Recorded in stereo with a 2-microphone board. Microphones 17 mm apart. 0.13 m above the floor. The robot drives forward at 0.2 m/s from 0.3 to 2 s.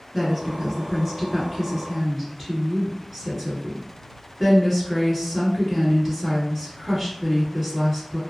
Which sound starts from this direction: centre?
A woman speaking, at 0.1 s.